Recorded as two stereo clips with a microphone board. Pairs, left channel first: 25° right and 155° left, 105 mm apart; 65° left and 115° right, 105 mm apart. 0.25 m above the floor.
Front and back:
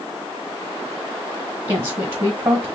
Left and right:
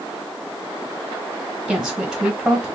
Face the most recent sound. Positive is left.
turn(degrees=170)